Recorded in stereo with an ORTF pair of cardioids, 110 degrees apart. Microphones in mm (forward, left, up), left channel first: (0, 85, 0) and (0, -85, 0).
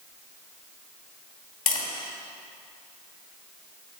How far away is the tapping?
About 2.5 m.